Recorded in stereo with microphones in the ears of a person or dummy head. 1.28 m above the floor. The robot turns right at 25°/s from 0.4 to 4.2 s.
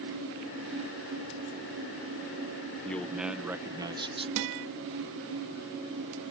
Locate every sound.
2.9 s a man speaking: 170° left; by 4.3 s 155° right
4.4 s a guitar: 65° right (ahead or behind)